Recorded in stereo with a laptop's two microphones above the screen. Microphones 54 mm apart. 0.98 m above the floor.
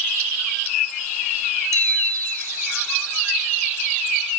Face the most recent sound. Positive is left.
turn(degrees=-80)